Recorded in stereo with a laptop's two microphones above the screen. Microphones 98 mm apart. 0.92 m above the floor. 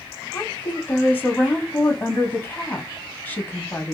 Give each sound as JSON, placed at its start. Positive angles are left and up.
{"t": 0.3, "sound": "a woman speaking", "side_deg": 20, "distance_m": 0.9}